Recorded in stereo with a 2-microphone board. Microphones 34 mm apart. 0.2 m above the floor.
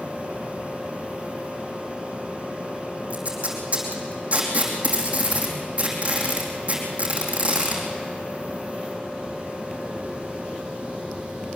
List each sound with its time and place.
3.1 s tape being pulled: 40° right (ahead or behind), 5 m